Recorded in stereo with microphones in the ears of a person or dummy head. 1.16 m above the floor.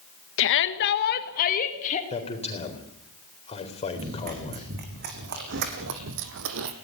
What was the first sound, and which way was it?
A shout, 65° left (ahead or behind).